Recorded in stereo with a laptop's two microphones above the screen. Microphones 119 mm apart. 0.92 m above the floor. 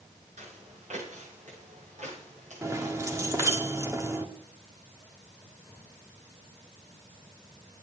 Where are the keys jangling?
25° right (ahead or behind), 1.4 m.